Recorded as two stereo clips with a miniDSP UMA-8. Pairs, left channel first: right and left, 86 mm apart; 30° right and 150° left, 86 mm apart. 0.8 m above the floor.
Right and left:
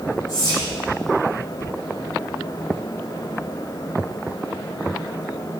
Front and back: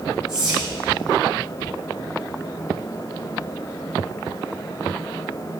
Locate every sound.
0.3 s whispering: 145° right, 2.5 m